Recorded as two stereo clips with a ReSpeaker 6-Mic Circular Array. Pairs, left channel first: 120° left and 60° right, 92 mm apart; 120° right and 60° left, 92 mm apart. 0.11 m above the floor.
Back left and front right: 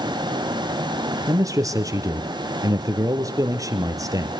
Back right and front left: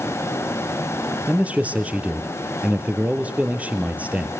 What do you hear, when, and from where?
1.3 s a man speaking: 15° right, 2 m